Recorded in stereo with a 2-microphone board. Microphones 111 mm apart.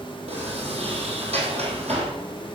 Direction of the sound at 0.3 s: 70° right (ahead or behind).